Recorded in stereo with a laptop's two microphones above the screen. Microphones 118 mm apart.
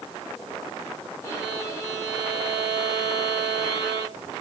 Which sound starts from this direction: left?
A violin, at 1.2 s.